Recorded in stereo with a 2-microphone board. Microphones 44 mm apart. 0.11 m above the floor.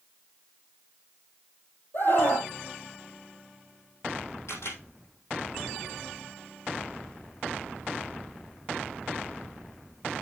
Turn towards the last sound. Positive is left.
turn(degrees=70)  # may be behind; listen again after turning